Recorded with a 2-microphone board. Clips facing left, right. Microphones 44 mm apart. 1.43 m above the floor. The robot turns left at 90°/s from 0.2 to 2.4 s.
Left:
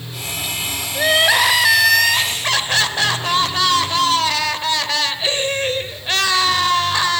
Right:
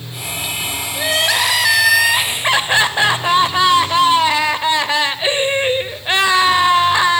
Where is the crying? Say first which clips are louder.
Left 3 dB; 25° left (ahead or behind), 1.2 m; by 7.2 s 20° right (ahead or behind), 1.2 m.